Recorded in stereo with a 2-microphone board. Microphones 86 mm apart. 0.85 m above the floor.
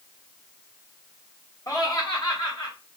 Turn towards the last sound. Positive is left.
turn(degrees=60)  # may be behind; listen again after turning